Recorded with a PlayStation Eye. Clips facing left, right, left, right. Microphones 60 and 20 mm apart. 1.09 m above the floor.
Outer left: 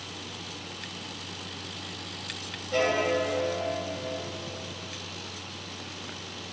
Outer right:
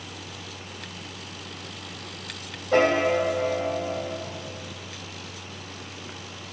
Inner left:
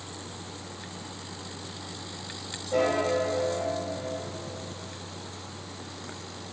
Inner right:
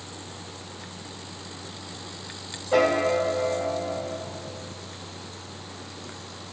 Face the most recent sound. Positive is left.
turn(degrees=-55)  # may be behind; listen again after turning